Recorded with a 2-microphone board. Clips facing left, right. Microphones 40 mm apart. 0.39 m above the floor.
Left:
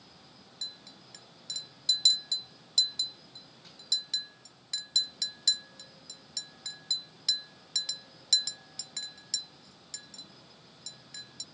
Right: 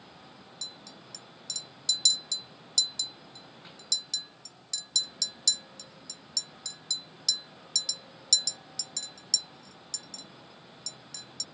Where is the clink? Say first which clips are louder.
Left 1 dB; 25° left (ahead or behind).